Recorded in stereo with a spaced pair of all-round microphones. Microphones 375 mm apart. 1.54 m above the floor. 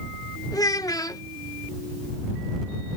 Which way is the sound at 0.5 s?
10° left (ahead or behind).